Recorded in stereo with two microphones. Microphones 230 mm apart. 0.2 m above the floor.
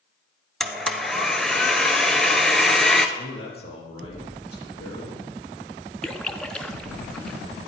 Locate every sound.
0.6 s a blender: centre (ahead or behind), 0.8 m
3.2 s a man speaking: 75° left (ahead or behind), 4.5 m
6.0 s a splash: 5° left (ahead or behind), 0.7 m